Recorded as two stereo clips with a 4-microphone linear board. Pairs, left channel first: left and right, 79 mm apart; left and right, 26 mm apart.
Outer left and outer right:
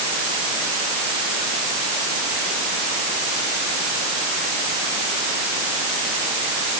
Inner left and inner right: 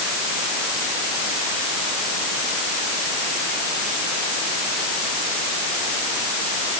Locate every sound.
Only background noise.